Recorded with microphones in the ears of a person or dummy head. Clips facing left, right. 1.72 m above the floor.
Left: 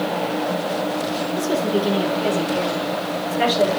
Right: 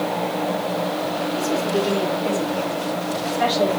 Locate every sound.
1.4 s a woman speaking: 55° left (ahead or behind), 9 m; by 3.8 s 40° left (ahead or behind), 6.5 m